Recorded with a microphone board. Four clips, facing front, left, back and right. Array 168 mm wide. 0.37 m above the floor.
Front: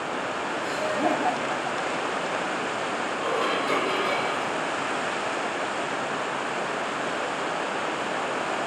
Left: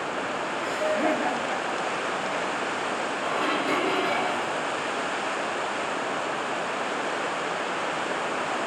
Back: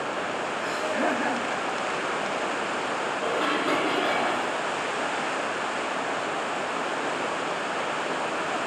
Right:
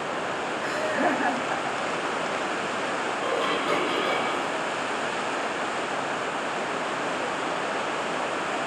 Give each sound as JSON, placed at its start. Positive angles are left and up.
{"t": 0.6, "sound": "laughter", "azimuth_deg": -125, "distance_m": 4.5}
{"t": 3.2, "sound": "dishes clattering", "azimuth_deg": -170, "distance_m": 8.5}